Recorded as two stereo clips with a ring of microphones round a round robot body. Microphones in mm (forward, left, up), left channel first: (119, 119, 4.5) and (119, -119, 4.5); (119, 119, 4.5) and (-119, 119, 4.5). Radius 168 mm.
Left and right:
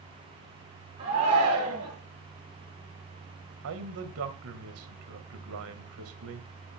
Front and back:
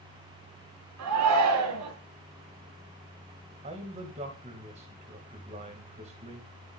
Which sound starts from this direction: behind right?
A man speaking, at 3.6 s.